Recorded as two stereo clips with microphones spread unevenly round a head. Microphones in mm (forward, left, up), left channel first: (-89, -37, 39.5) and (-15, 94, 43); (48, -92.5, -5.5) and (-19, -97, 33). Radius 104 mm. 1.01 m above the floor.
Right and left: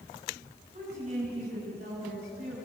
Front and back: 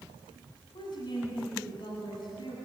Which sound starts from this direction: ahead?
A woman speaking, at 0.7 s.